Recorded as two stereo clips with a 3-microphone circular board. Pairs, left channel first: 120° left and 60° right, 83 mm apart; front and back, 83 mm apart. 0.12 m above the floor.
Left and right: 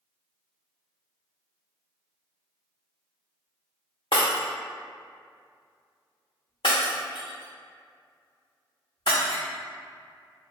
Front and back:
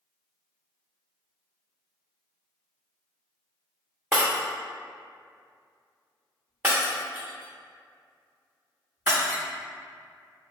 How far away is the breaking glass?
About 1.1 m.